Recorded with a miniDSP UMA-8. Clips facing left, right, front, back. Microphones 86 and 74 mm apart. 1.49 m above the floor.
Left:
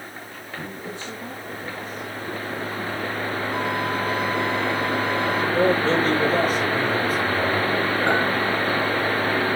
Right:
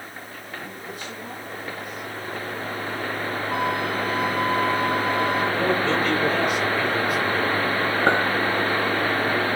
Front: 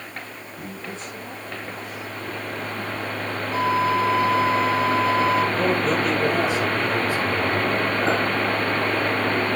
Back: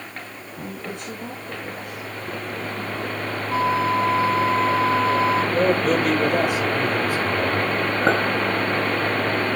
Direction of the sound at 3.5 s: 135° right.